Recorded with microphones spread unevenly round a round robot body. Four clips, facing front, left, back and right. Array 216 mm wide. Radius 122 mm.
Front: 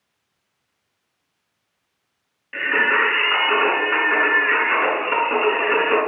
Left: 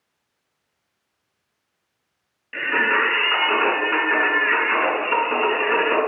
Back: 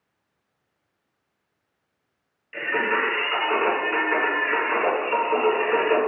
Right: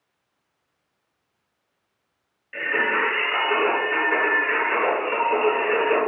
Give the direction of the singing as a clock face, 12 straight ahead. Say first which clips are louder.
Left 3 dB, front 4 dB; 10 o'clock.